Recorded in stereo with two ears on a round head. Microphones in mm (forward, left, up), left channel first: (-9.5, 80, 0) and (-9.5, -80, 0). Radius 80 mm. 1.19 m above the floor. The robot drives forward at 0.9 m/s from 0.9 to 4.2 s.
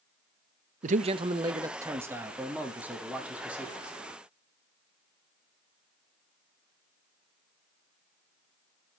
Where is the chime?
I don't hear a chime.